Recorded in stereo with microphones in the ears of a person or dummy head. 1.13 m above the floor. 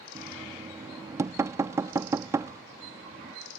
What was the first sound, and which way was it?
Knocking, 15° right (ahead or behind).